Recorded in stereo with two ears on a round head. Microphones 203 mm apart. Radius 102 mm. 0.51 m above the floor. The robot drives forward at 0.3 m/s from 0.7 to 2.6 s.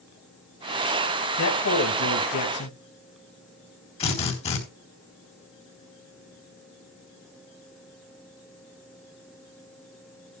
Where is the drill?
30° left (ahead or behind), 3.5 m.